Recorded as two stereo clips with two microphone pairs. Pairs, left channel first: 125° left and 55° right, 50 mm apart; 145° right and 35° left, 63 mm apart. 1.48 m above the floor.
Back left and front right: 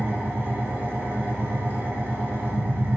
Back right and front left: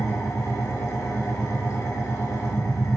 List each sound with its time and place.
0.0 s an engine running: 105° right, 3.5 m